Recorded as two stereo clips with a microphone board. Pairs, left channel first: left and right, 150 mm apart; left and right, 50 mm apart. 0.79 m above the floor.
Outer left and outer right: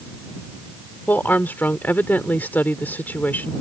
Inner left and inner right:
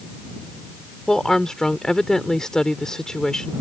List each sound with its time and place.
1.1 s a woman speaking: 10° left (ahead or behind)